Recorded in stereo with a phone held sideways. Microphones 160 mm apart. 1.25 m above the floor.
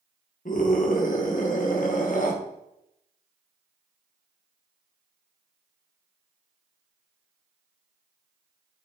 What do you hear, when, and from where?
0.5 s a scream: 55° left (ahead or behind), 1.4 m